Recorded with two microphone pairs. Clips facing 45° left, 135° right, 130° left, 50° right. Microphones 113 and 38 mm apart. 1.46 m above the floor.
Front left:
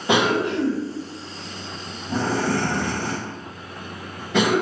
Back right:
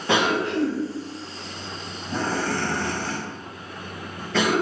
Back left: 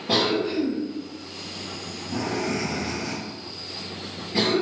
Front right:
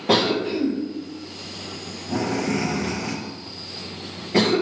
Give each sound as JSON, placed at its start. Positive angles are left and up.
{"t": 0.1, "sound": "a cough", "azimuth_deg": -35, "distance_m": 0.9}